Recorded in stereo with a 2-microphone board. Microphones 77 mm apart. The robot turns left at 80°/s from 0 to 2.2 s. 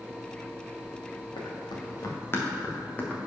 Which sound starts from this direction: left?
Running footsteps, at 1.4 s.